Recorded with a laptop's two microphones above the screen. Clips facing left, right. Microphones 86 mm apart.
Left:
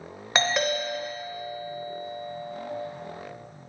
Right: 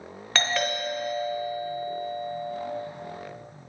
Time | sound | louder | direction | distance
0.3 | a doorbell | left 2 dB | 20° left (ahead or behind) | 0.8 m